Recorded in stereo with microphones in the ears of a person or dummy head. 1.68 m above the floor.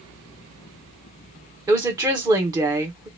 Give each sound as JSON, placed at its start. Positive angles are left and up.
{"t": 1.7, "sound": "a woman speaking", "side_deg": -20, "distance_m": 1.0}